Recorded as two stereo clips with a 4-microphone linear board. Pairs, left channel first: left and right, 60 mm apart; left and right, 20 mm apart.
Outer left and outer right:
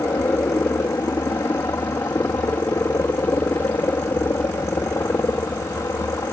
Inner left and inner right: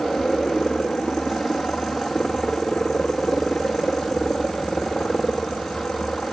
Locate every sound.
0.0 s a helicopter: 70° left (ahead or behind)